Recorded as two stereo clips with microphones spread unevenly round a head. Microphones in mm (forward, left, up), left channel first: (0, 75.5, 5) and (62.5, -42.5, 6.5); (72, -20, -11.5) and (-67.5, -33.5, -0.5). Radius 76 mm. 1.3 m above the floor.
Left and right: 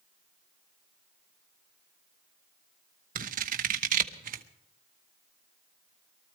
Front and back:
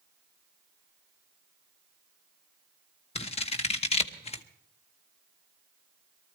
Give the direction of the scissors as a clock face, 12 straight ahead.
1 o'clock.